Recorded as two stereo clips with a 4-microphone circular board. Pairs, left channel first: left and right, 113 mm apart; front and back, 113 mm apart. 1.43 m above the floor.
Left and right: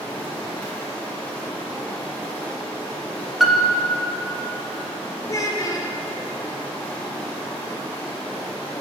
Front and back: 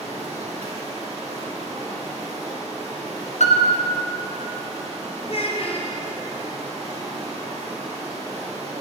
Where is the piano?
Straight ahead, 0.6 m.